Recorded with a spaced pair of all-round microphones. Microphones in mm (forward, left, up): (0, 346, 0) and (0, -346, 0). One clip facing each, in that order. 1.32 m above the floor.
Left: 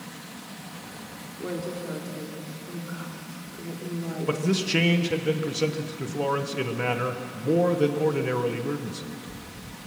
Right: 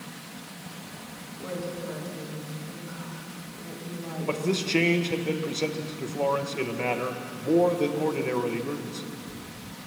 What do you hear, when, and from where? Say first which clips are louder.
1.4 s a woman speaking: left 2 dB; 30° right (ahead or behind), 4 m
4.3 s a man speaking: even; 45° left (ahead or behind), 1.3 m